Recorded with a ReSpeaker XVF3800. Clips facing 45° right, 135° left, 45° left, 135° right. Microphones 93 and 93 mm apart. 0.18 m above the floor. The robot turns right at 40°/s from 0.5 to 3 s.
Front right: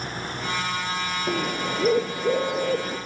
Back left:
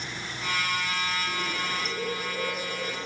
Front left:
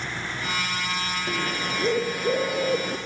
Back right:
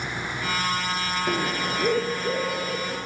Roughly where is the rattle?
No rattle in this recording.